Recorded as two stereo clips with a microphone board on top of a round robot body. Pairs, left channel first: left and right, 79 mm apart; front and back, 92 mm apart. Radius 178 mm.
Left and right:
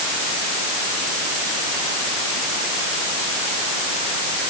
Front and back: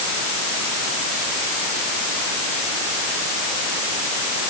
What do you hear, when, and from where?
Only background noise.